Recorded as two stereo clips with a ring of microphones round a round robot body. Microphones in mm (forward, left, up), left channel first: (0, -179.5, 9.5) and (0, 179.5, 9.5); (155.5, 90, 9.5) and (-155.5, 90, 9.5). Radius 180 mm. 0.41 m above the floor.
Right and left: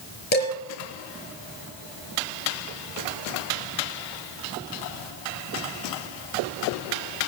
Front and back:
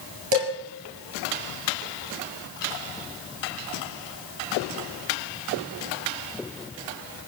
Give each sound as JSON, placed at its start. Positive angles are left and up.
{"t": 0.3, "sound": "dishes clattering", "azimuth_deg": -155, "distance_m": 4.5}